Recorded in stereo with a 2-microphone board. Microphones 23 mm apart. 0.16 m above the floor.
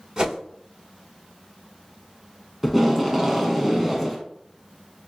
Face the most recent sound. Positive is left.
turn(degrees=-5)  # may be behind; listen again after turning